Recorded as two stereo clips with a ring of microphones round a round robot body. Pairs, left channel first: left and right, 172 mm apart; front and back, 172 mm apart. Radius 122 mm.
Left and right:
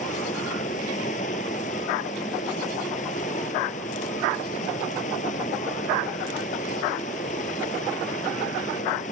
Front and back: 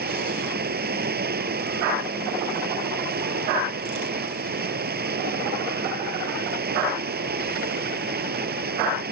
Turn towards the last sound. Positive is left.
turn(degrees=155)